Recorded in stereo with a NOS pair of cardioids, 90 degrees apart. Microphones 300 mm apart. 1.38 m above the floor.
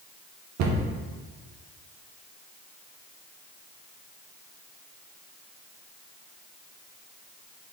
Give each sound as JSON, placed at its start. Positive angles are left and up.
{"t": 0.6, "sound": "a cupboard door", "azimuth_deg": -65, "distance_m": 0.8}